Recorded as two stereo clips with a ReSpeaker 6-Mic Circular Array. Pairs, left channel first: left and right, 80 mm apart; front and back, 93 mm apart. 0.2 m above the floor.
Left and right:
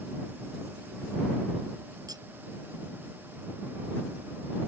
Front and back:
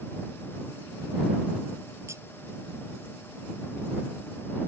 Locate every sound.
2.1 s cutlery clinking: 120° right